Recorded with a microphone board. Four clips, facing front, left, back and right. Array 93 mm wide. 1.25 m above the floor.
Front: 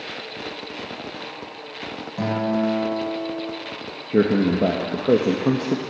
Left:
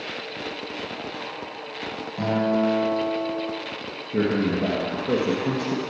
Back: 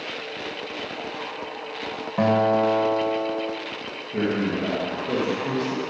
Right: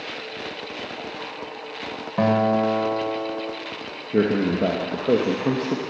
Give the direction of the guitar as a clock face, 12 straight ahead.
4 o'clock.